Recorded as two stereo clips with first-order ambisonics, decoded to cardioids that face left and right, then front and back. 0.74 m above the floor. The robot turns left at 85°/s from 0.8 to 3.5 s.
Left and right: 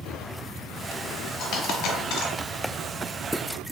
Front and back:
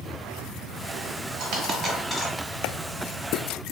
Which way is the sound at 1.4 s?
140° left.